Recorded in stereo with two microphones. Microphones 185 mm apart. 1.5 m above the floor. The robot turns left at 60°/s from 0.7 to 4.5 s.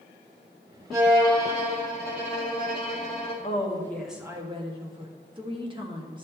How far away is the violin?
About 3.5 m.